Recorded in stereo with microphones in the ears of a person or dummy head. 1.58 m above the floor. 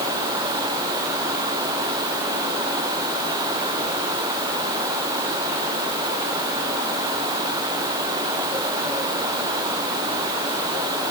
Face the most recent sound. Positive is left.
No sound to turn to.